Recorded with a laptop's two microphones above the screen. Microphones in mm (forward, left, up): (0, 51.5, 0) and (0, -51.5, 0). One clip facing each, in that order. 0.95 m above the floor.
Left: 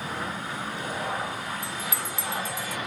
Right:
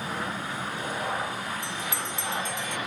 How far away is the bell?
About 0.6 m.